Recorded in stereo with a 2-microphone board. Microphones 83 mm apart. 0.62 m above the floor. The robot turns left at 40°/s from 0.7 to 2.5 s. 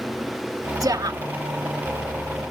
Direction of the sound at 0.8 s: 50° right (ahead or behind).